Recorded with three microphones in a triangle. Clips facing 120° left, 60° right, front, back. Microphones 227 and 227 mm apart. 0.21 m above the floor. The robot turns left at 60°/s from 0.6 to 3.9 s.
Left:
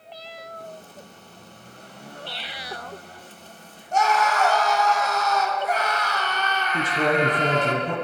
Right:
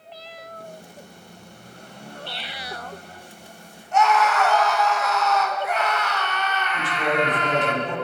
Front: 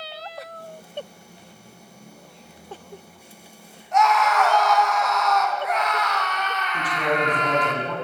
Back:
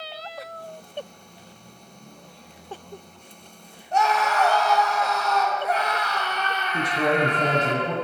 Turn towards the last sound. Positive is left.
turn(degrees=130)